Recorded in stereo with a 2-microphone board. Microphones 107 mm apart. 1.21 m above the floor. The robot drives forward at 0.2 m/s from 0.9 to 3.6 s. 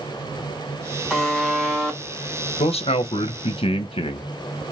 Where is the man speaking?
70° left (ahead or behind), 0.8 m; by 4.3 s 60° left (ahead or behind), 0.9 m.